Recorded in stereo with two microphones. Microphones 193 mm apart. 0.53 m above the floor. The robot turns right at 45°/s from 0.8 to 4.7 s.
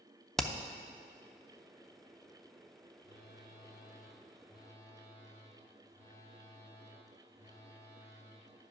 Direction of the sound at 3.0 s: 85° left.